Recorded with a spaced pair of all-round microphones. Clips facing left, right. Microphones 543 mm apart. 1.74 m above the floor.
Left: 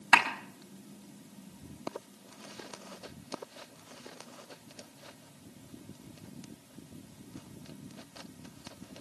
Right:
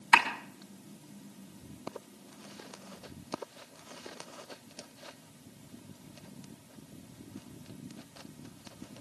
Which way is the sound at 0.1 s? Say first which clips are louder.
Even; 75° left (ahead or behind).